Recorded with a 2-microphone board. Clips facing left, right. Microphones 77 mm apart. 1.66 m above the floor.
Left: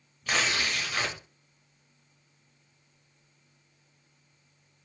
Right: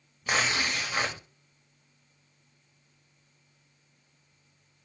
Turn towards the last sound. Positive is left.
turn(degrees=-15)  # may be behind; listen again after turning